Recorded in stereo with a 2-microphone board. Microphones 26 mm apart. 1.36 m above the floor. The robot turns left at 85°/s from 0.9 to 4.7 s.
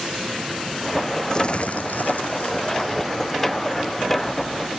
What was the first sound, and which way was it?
Crumpling, 155° left.